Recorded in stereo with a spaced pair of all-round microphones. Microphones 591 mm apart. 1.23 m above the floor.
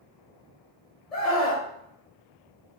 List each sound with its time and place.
1.1 s a scream: 65° left (ahead or behind), 1.5 m